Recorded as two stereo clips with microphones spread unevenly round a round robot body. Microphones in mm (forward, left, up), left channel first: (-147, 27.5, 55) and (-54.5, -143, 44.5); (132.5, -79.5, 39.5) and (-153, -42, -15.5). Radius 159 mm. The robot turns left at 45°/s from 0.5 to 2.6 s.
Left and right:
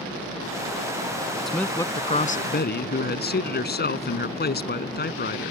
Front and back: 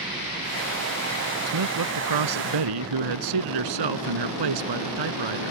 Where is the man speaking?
155° right; by 5.5 s 155° left.